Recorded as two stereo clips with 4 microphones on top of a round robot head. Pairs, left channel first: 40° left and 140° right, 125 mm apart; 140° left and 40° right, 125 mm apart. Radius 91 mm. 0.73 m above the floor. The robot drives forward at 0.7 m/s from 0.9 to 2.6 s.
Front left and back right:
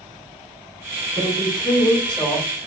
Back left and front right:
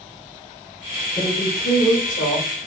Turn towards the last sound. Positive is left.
turn(degrees=130)